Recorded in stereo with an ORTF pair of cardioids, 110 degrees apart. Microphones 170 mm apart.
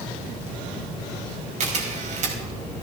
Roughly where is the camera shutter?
Ahead right.